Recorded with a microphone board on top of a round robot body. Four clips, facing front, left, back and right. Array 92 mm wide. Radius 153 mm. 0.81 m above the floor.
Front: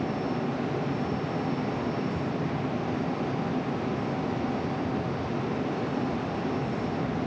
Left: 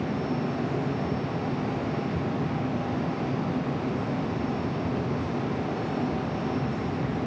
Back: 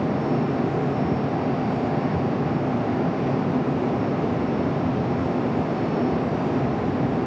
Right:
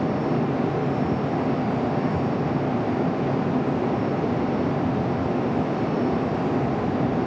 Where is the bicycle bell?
No bicycle bell in this recording.